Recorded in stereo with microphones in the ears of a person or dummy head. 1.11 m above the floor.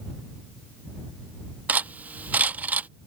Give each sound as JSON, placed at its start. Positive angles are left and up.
{"t": 1.7, "sound": "cutlery clinking", "side_deg": -10}